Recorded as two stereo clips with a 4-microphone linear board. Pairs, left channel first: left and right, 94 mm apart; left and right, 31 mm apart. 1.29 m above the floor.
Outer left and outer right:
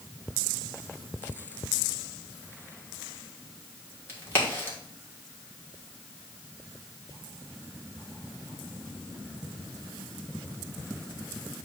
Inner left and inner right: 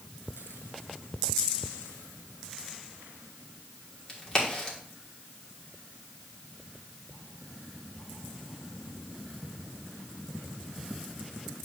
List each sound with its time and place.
4.1 s a crack: 25° left (ahead or behind), 2.0 m